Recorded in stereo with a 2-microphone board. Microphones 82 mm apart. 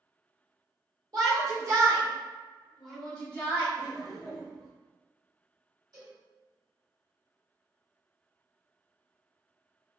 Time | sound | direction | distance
1.1 | a shout | 50° right (ahead or behind) | 1.6 m
3.8 | laughter | centre (ahead or behind) | 1.3 m
5.9 | a cowbell | 50° right (ahead or behind) | 1.9 m